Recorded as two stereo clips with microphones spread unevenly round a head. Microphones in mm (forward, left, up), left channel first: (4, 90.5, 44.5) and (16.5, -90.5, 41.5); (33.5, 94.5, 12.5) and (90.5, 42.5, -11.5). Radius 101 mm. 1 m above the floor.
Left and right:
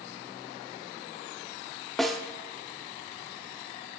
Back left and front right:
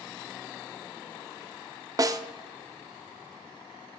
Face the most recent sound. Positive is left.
turn(degrees=5)